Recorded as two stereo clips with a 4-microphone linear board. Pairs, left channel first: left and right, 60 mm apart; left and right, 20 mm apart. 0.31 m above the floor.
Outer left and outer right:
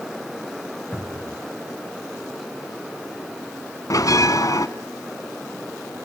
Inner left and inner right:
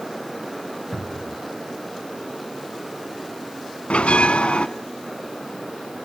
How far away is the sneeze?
I don't hear a sneeze.